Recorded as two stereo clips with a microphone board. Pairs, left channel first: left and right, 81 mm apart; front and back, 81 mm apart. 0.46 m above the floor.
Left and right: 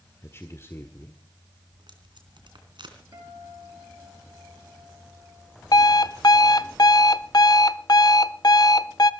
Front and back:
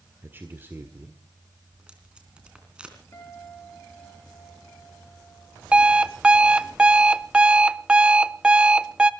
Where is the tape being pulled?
105° right, 3.5 m.